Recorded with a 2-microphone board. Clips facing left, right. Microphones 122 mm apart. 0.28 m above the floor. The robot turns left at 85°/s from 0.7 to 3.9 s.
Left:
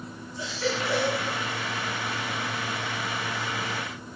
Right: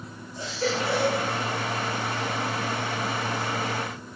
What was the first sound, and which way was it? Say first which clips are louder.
A baby crying: right 2 dB; 135° right.